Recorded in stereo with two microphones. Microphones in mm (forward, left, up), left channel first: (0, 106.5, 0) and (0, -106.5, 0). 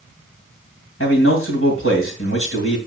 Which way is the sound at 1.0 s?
85° left.